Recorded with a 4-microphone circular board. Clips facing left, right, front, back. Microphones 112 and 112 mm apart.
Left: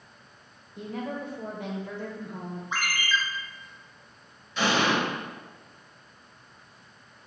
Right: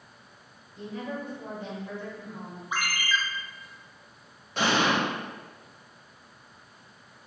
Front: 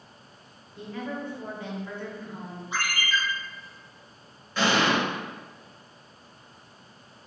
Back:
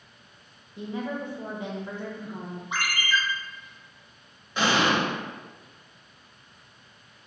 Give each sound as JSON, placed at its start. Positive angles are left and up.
{"t": 0.8, "sound": "a woman speaking", "azimuth_deg": 110, "distance_m": 0.7}
{"t": 2.7, "sound": "a ringtone", "azimuth_deg": -170, "distance_m": 0.7}
{"t": 4.6, "sound": "an explosion", "azimuth_deg": -110, "distance_m": 1.5}